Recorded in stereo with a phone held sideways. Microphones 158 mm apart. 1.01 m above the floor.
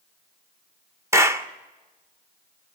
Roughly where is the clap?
Centre.